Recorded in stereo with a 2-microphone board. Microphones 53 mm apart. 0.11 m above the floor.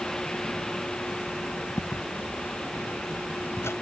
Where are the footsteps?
85° left; by 3.7 s 55° left (ahead or behind).